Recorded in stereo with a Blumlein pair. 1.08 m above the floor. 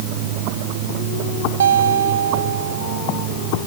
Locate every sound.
1.6 s a guitar: 65° right